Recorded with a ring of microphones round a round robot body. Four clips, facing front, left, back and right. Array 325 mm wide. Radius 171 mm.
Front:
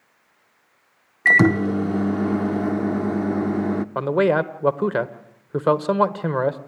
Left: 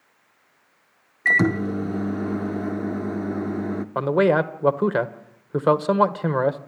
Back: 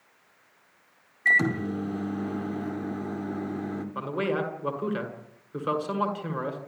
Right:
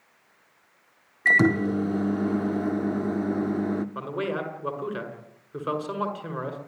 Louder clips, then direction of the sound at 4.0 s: Left 11 dB, front 10 dB; 45° left.